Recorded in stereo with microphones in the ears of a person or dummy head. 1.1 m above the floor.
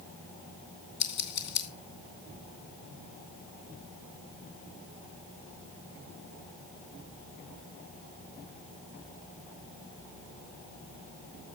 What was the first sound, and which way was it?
Scissors, 60° left (ahead or behind).